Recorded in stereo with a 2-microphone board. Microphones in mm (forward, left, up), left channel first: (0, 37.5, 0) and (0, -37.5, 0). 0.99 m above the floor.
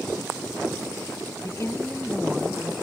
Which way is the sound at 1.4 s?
45° left (ahead or behind).